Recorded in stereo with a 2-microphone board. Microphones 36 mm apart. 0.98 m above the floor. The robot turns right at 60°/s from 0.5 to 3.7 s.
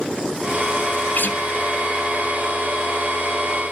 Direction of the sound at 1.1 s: 60° left (ahead or behind).